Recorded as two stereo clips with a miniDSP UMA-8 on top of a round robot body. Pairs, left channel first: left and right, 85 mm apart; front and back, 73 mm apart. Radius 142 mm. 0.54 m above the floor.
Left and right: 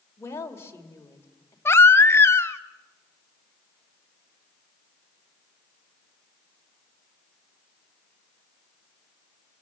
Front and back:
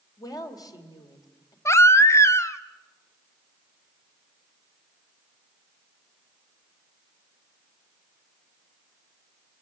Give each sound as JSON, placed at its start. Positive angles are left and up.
{"t": 0.2, "sound": "a woman speaking", "azimuth_deg": 30, "distance_m": 2.5}
{"t": 1.6, "sound": "a baby crying", "azimuth_deg": 35, "distance_m": 1.0}